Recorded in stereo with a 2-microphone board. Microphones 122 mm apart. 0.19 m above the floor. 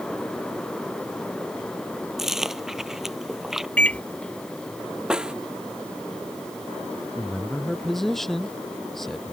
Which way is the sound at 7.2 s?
Centre (ahead or behind).